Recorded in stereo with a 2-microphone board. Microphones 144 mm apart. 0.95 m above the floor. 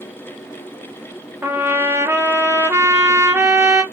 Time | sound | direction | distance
1.4 | a trumpet | 15° right (ahead or behind) | 0.6 m